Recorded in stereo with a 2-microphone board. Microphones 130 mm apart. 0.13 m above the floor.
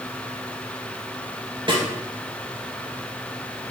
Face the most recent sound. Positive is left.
turn(degrees=-40)  # may be behind; listen again after turning